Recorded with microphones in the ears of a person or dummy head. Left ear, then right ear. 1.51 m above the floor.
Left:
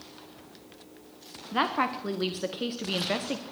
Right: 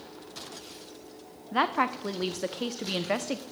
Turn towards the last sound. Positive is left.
turn(degrees=-15)  # may be behind; listen again after turning